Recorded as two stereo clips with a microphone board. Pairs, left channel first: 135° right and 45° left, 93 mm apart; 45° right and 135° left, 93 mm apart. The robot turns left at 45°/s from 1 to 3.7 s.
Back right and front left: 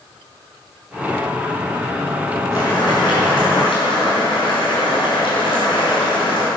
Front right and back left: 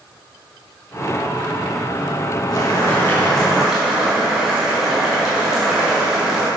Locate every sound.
2.5 s boiling: 85° right, 4 m; by 6.5 s 140° right, 4 m